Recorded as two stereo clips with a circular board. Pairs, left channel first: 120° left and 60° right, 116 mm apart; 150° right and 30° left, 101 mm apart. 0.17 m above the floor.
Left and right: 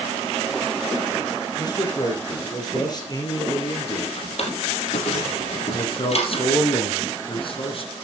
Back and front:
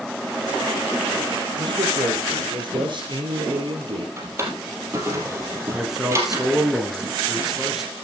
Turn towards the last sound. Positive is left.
turn(degrees=115)